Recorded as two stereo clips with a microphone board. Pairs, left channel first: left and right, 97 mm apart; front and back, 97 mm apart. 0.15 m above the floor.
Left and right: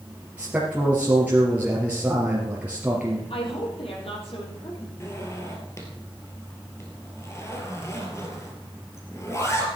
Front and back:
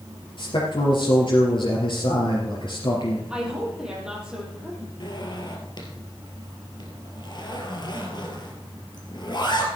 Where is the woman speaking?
100° left, 5.5 m.